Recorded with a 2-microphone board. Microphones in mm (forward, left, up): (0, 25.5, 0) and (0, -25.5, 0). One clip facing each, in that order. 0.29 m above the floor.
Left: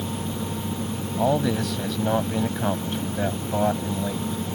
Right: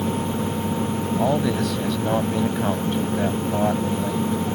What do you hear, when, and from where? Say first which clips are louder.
1.2 s a man speaking: even; centre (ahead or behind)